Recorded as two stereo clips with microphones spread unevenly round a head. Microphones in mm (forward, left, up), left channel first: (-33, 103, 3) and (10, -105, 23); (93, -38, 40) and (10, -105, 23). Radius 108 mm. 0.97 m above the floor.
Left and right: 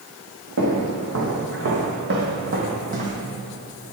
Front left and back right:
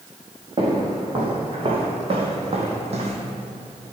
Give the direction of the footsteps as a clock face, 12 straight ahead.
3 o'clock.